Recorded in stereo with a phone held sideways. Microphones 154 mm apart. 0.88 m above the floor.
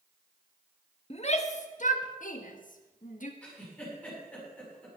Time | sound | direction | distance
1.1 | a shout | 45° left (ahead or behind) | 1.4 m
3.4 | a giggle | 5° left (ahead or behind) | 8 m